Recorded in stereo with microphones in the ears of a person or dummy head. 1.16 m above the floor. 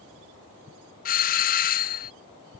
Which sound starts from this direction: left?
A doorbell, at 1.1 s.